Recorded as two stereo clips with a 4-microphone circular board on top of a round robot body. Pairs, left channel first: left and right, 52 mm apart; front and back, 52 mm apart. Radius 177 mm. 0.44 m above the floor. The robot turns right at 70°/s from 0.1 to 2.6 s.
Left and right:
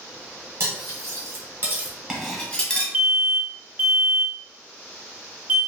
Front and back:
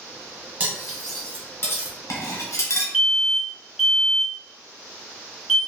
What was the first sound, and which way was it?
Cutlery clinking, 115° right.